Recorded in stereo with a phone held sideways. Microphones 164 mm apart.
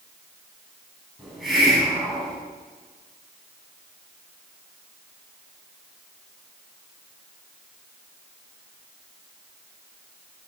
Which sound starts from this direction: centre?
A hiss, at 1.2 s.